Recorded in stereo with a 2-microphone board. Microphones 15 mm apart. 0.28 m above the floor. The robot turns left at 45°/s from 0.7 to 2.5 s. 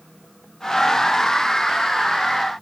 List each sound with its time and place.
Only background noise.